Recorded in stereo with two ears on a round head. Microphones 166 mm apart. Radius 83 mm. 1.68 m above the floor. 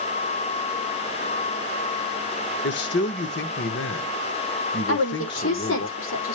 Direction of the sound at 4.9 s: 75° left (ahead or behind).